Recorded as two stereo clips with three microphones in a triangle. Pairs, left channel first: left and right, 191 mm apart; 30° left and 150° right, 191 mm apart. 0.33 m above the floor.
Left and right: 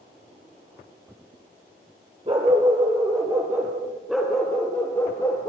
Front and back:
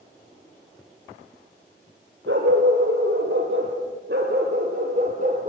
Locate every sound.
2.3 s a dog barking: 150° right, 4 m; by 5.5 s 160° left, 4 m